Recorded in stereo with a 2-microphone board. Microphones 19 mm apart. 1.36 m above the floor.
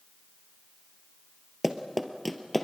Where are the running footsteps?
15° right (ahead or behind), 1.5 m; by 2.6 s 10° left (ahead or behind), 1.6 m.